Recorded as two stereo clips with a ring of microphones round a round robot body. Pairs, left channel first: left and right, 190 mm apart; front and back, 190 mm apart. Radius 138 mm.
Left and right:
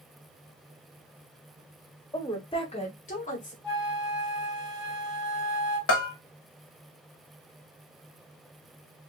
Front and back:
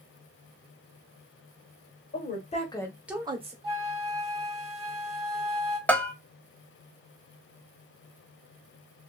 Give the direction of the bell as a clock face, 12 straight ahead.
9 o'clock.